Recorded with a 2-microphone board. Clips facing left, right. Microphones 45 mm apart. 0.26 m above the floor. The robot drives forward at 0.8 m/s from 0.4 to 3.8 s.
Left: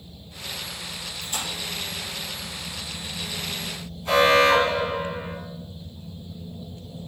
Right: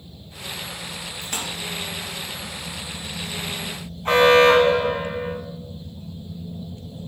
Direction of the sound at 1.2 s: 70° right (ahead or behind).